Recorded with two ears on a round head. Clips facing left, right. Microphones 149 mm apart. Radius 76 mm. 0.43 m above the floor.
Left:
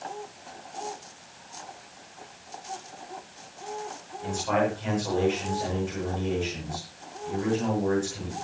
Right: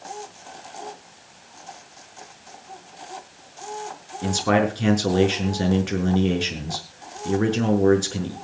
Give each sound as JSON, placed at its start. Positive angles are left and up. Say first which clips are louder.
{"t": 4.2, "sound": "a man speaking", "louder": "right 5 dB", "side_deg": -80, "distance_m": 6.5}